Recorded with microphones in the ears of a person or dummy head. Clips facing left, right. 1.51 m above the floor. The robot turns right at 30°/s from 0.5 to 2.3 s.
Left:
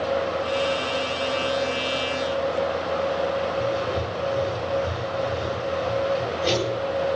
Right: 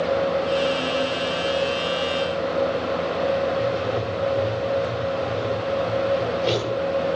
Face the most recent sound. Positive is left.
turn(degrees=15)  # may be behind; listen again after turning